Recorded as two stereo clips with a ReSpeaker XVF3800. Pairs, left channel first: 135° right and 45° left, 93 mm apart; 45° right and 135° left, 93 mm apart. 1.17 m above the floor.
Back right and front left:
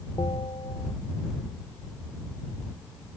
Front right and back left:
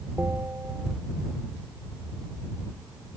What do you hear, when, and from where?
0.2 s a bell: 160° right